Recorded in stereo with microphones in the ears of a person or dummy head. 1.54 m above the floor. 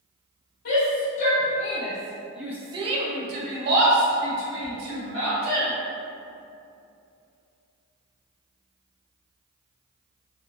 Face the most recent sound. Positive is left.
turn(degrees=-85)